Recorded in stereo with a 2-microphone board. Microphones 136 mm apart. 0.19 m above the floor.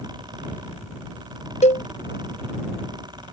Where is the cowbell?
60° left (ahead or behind).